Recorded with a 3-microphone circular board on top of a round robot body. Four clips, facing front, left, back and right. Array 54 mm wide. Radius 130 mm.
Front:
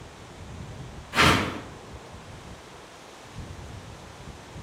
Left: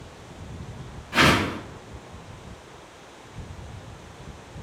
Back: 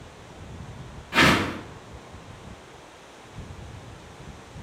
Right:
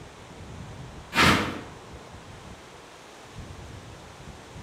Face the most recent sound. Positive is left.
turn(degrees=170)